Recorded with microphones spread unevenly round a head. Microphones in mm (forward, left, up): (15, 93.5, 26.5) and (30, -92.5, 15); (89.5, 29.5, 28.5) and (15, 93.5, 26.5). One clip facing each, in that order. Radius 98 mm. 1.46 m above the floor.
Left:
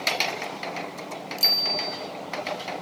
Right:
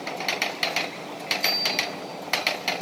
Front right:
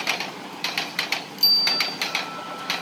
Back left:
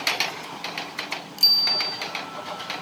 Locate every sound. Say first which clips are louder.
1.4 s a bicycle bell: right 2 dB, front right 2 dB; 95° left, 5.5 m